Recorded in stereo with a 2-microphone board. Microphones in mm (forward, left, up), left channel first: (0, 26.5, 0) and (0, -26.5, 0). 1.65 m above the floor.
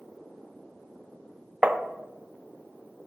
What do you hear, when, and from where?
1.6 s tapping: 25° right (ahead or behind), 0.5 m